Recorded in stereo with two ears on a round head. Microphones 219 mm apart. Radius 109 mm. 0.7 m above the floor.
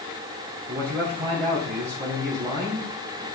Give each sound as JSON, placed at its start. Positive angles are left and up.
{"t": 0.7, "sound": "a man speaking", "side_deg": -40, "distance_m": 2.0}